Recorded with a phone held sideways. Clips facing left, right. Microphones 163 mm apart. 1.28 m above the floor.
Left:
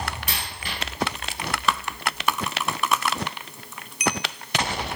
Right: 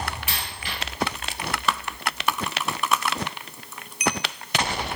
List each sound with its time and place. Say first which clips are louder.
0.3 s a dropped coin: even; 40° left (ahead or behind), 2.5 m